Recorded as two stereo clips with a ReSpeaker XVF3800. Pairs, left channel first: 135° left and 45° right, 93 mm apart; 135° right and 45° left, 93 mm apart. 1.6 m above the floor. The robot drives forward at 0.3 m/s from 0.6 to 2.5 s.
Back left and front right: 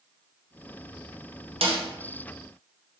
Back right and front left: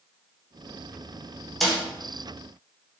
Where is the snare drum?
50° right, 0.8 m; by 1.8 s 55° right, 0.7 m.